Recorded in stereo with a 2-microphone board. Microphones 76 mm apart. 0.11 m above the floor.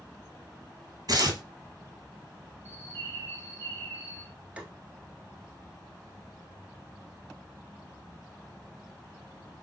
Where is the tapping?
15° right (ahead or behind), 0.9 m.